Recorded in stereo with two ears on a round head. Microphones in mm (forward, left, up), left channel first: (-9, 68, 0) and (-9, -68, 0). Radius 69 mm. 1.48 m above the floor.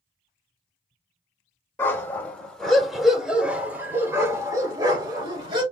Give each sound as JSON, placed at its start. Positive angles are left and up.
{"t": 1.8, "sound": "a dog barking", "side_deg": 15, "distance_m": 2.0}